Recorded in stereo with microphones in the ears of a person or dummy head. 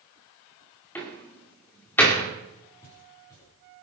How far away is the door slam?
About 2.5 m.